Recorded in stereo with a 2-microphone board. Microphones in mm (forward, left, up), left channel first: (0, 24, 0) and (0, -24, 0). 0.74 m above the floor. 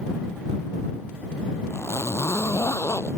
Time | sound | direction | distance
1.7 | a zipper | 75° left (ahead or behind) | ?